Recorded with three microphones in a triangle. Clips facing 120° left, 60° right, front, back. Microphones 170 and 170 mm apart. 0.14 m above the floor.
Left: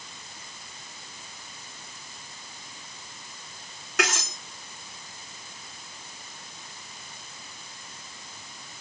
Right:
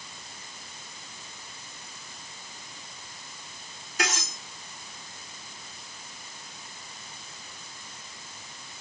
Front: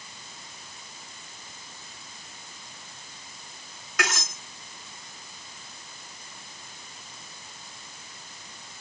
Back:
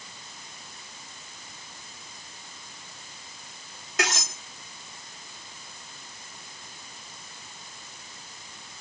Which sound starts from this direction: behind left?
Cutlery clinking, at 4.0 s.